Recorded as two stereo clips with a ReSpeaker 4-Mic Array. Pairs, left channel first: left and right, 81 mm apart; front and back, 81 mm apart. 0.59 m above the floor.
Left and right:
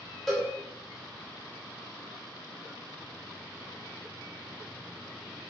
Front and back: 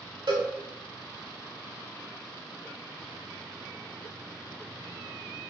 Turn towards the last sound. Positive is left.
turn(degrees=180)